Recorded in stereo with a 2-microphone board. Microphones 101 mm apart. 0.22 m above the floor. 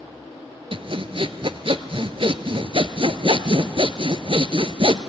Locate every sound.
0.7 s sawing: 60° right (ahead or behind), 0.7 m